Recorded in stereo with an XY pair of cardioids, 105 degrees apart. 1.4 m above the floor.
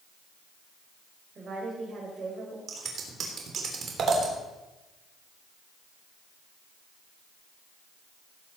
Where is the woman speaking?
40° right, 5.5 m.